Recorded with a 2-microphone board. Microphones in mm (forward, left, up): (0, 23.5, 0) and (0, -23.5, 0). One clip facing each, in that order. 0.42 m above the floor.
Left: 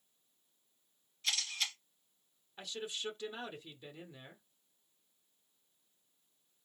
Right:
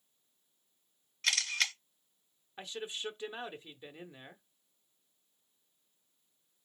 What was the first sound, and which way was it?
A camera shutter, 60° right (ahead or behind).